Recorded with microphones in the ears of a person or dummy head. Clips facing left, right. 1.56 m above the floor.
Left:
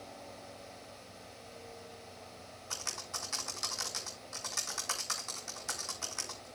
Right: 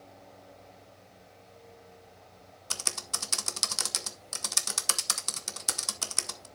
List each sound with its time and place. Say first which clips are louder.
2.7 s typing on a keyboard: right 5 dB; 55° right (ahead or behind), 0.8 m